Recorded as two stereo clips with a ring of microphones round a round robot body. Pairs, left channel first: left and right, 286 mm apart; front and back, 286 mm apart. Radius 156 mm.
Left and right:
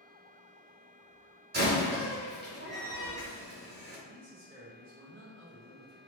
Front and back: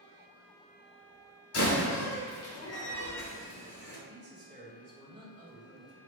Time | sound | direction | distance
1.5 | a door slam | 35° right | 1.8 m
4.1 | a man speaking | 125° right | 1.7 m